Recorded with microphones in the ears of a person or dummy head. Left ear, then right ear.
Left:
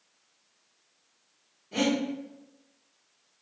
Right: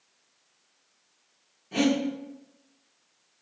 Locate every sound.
1.7 s breathing: 35° right (ahead or behind), 1.1 m